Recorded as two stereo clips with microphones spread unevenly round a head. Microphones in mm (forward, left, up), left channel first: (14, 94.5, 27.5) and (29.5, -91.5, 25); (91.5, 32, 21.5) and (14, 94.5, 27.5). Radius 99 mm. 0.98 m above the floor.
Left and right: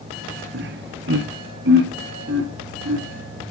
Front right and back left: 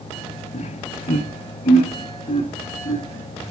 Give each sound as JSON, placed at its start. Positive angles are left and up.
{"t": 0.5, "sound": "laughter", "azimuth_deg": -55, "distance_m": 0.8}